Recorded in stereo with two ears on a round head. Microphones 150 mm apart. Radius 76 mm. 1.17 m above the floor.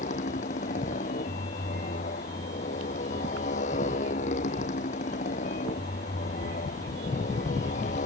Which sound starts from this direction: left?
A motorcycle, at 0.0 s.